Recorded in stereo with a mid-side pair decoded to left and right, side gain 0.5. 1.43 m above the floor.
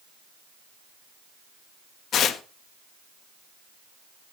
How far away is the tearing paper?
About 1.6 m.